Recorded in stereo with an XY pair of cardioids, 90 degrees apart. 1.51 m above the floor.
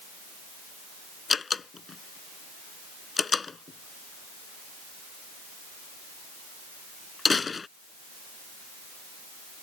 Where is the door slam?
40° left.